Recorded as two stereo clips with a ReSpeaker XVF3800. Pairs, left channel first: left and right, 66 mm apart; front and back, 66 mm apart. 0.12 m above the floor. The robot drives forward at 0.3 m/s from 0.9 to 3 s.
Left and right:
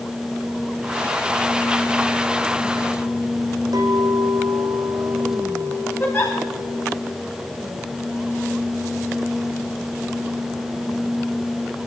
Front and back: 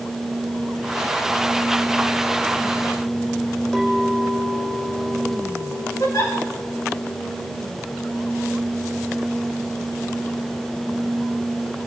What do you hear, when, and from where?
3.7 s a clink: 85° right, 4.5 m
6.0 s a giggle: 35° left, 8 m